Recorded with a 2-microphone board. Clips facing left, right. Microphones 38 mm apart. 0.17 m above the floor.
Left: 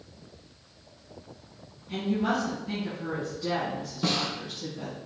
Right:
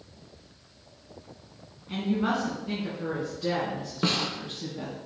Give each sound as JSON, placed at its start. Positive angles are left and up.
{"t": 1.9, "sound": "a woman speaking", "side_deg": -35, "distance_m": 1.6}
{"t": 4.0, "sound": "a snare drum", "side_deg": -40, "distance_m": 0.8}